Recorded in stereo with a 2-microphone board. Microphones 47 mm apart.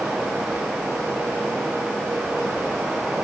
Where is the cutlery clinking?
I don't hear cutlery clinking.